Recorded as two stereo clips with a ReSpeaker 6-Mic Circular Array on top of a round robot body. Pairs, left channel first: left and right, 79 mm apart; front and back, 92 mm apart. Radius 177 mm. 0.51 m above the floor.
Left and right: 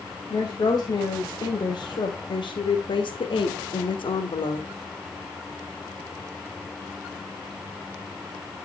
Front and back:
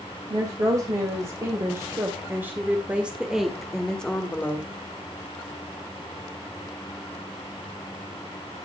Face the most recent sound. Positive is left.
turn(degrees=70)